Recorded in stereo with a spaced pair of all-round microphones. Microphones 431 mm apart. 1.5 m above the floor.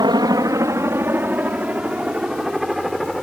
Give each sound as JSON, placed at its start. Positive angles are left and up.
{"t": 0.0, "sound": "a helicopter", "side_deg": -10}